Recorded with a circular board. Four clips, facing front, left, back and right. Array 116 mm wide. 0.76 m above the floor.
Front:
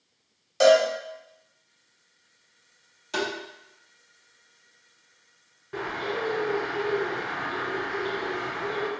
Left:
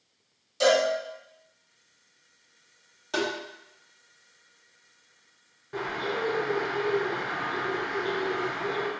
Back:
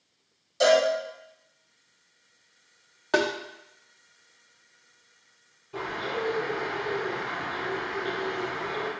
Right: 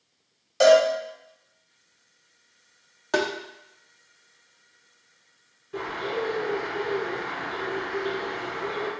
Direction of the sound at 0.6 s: 55° right.